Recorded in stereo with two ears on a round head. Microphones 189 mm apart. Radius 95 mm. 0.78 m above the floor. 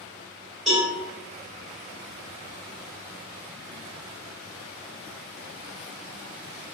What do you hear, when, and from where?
0.7 s a cowbell: centre (ahead or behind), 1.4 m